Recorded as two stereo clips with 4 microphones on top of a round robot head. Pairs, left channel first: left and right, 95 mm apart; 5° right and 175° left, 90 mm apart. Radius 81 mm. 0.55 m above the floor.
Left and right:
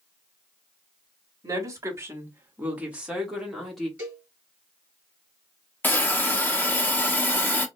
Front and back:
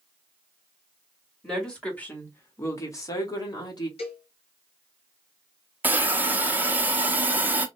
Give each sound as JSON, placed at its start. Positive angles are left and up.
{"t": 1.4, "sound": "a woman speaking", "azimuth_deg": -90, "distance_m": 1.2}
{"t": 4.0, "sound": "a cowbell", "azimuth_deg": -15, "distance_m": 1.6}
{"t": 5.8, "sound": "a hiss", "azimuth_deg": 130, "distance_m": 0.9}